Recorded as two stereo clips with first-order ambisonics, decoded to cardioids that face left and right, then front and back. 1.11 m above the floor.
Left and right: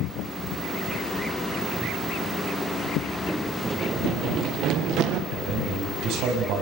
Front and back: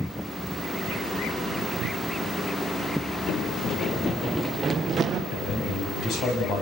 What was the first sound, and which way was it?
Running footsteps, 5° right.